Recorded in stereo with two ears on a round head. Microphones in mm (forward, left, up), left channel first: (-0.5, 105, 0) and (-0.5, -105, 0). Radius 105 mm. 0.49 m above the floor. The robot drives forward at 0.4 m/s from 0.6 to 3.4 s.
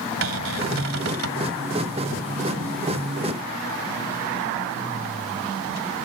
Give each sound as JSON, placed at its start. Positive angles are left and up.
{"t": 0.2, "sound": "a cupboard door", "side_deg": -60}